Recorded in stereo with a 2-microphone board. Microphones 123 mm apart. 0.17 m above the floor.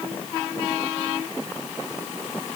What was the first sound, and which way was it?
Only background noise.